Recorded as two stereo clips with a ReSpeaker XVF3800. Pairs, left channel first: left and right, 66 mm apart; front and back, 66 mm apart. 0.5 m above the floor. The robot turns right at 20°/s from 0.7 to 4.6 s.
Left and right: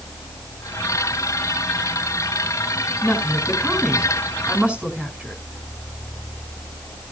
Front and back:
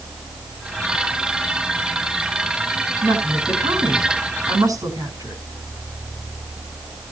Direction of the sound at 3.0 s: 170° left.